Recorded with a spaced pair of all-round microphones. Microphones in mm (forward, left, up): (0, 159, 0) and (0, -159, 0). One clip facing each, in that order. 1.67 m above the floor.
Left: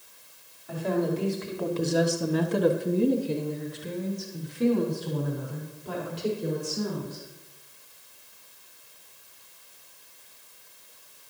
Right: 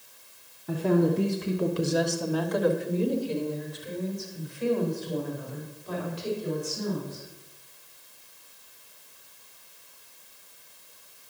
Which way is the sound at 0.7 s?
65° right (ahead or behind).